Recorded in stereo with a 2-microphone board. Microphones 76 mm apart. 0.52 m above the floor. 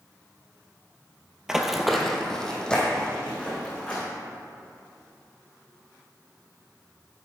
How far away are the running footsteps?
About 0.7 m.